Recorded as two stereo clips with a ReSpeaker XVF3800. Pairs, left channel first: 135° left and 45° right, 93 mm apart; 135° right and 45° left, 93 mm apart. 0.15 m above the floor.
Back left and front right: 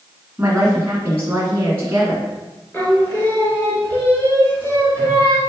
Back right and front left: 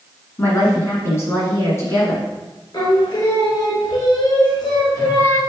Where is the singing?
160° right, 1.1 m.